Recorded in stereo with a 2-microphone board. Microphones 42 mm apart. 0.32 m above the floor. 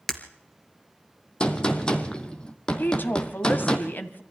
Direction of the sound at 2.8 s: 55° left (ahead or behind).